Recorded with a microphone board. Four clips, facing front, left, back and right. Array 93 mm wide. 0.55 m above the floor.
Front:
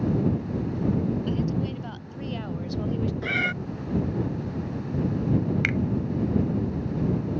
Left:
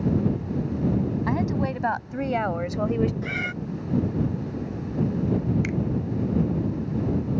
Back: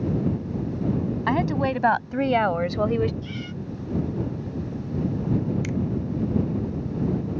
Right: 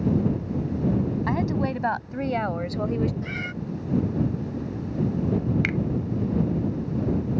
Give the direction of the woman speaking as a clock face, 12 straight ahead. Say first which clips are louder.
Even, back 5 dB; 6 o'clock.